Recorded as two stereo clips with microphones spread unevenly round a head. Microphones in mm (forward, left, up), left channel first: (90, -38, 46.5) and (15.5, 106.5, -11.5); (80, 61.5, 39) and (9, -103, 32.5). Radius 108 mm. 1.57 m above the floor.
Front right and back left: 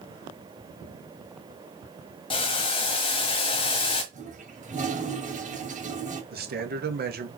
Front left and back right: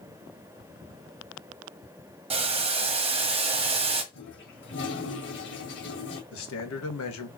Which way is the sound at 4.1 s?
70° left.